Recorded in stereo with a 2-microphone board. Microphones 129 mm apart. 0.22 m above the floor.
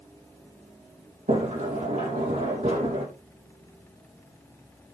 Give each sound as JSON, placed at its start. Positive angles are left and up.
{"t": 1.3, "sound": "a sliding door", "side_deg": -70, "distance_m": 6.5}